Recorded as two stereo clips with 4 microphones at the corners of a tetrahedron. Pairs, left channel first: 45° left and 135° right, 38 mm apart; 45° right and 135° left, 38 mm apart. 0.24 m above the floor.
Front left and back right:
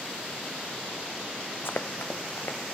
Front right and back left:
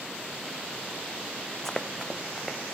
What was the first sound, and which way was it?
Running footsteps, 35° left.